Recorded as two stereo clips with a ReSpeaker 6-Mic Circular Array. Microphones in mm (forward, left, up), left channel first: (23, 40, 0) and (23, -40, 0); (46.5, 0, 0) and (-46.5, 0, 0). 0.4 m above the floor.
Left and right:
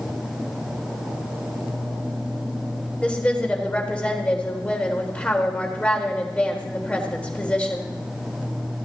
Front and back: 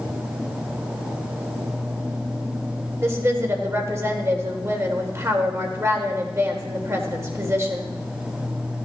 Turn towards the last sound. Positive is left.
turn(degrees=150)